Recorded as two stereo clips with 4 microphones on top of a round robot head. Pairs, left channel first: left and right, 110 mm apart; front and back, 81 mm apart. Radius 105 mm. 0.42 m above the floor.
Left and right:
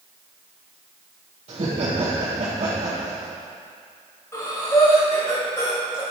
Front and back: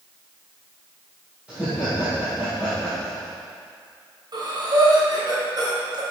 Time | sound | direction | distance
1.5 | laughter | 105° right | 1.9 m
4.3 | breathing | 160° left | 2.5 m